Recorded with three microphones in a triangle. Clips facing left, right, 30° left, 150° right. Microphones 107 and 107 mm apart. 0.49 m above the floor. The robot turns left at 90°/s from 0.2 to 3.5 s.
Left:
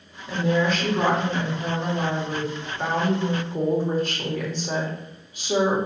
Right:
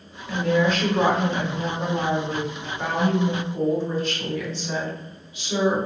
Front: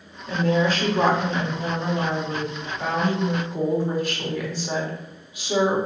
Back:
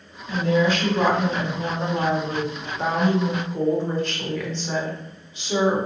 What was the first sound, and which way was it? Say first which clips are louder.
A woman speaking: right 1 dB, back 1 dB; 40° left.